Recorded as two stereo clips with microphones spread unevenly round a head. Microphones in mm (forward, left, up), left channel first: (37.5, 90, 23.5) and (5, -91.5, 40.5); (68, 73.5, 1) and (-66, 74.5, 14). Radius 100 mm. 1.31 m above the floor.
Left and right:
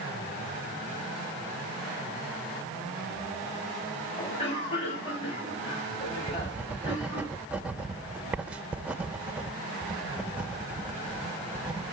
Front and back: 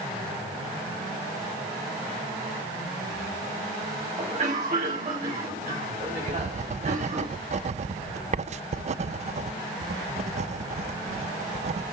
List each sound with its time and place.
4.2 s a cough: 140° left, 8 m
6.3 s writing: straight behind, 0.6 m